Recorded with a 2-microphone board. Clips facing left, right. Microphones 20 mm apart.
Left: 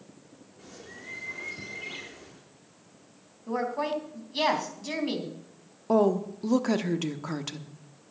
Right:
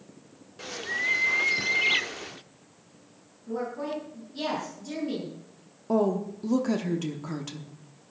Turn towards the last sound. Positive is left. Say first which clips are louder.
# left 2 dB
turn(degrees=20)  # may be behind; listen again after turning